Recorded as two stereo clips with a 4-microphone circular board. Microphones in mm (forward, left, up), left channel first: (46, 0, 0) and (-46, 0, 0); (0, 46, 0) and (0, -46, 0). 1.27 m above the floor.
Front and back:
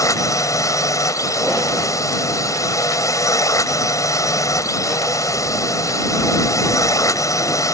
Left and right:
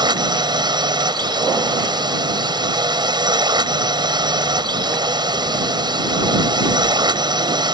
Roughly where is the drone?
Ahead right.